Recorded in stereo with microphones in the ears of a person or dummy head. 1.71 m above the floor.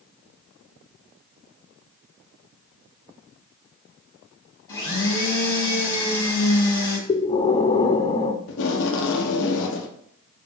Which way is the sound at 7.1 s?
25° left (ahead or behind).